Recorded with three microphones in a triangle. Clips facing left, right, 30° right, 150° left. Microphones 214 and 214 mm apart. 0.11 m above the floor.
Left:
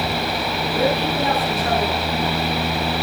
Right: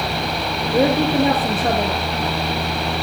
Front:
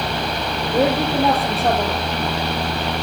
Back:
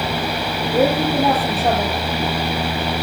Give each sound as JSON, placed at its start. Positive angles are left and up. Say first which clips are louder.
{"t": 0.7, "sound": "a woman speaking", "louder": "right 5 dB, back 1 dB", "azimuth_deg": -120, "distance_m": 3.0}